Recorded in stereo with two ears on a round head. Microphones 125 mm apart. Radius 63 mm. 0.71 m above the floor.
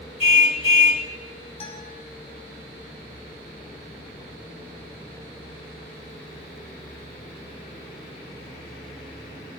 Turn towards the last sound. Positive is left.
turn(degrees=45)  # may be behind; listen again after turning